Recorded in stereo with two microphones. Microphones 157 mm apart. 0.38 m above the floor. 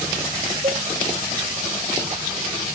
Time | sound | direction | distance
0.6 | a cowbell | 50° right (ahead or behind) | ?